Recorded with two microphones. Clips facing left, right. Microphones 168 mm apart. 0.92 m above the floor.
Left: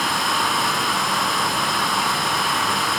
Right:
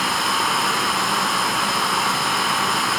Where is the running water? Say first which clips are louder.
Even; centre (ahead or behind), 7.5 m.